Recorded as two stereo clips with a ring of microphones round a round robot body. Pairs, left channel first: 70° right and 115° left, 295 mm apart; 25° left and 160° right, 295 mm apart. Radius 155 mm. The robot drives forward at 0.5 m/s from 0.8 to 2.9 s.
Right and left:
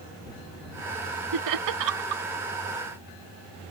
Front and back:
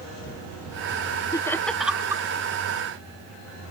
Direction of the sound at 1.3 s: 100° left.